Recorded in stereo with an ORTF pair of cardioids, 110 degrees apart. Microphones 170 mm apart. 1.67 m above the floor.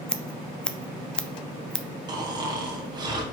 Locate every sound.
0.1 s scissors: 5° left, 0.6 m
2.1 s snoring: 25° right, 1.7 m